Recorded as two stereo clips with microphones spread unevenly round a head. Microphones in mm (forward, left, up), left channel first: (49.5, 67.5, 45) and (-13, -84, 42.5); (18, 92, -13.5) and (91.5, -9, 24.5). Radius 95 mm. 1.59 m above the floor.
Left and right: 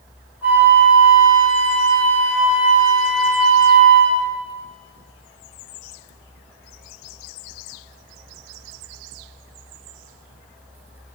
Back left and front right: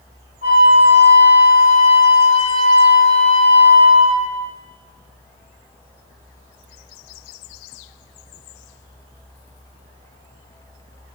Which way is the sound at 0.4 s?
165° left.